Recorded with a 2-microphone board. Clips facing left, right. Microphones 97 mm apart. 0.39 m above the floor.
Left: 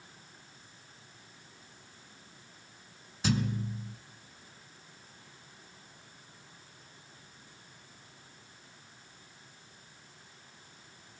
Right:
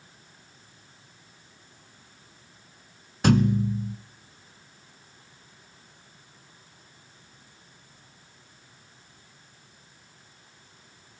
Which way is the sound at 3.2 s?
60° right (ahead or behind).